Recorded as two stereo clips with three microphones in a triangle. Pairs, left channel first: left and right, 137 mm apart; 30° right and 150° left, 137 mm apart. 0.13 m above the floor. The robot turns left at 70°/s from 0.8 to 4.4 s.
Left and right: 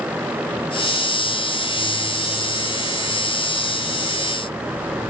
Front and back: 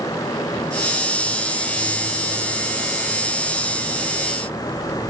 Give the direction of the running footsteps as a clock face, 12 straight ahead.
No running footsteps in this recording.